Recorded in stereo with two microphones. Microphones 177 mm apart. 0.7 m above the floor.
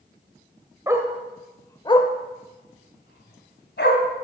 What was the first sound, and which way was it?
A dog barking, 20° right (ahead or behind).